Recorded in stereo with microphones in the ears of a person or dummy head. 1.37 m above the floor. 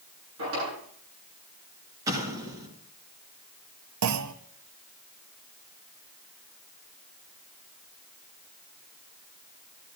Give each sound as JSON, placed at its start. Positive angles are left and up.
{"t": 0.4, "sound": "a drawer", "side_deg": -85, "distance_m": 9.5}
{"t": 2.1, "sound": "an explosion", "side_deg": -20, "distance_m": 2.5}
{"t": 4.0, "sound": "a clunk", "side_deg": -85, "distance_m": 0.7}